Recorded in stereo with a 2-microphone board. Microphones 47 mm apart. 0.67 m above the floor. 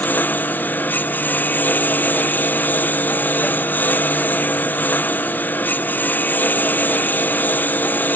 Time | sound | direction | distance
0.0 | a lawn mower | 40° left (ahead or behind) | ?